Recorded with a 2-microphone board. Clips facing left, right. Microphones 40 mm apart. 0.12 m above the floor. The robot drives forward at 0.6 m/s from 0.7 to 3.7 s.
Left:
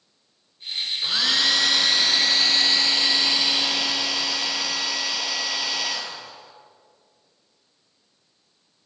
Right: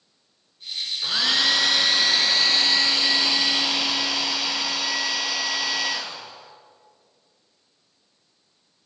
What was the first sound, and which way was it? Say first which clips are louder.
A hair dryer: even; 5° right (ahead or behind).